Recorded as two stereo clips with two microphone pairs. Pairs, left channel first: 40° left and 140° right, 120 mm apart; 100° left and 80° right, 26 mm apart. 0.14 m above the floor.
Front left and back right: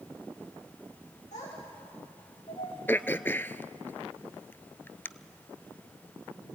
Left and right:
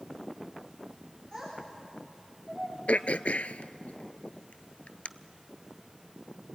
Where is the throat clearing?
105° left, 0.6 m.